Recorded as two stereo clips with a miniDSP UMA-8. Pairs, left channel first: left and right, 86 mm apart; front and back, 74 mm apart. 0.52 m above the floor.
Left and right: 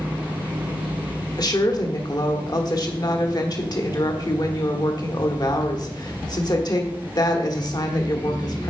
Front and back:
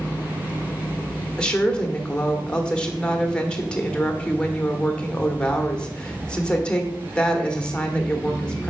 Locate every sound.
1.4 s a woman speaking: 75° left, 1.4 m